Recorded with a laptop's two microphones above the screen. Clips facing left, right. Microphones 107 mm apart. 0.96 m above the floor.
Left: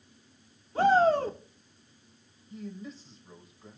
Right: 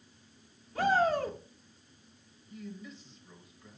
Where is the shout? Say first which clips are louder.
Left 5 dB; 30° left (ahead or behind), 2.5 m.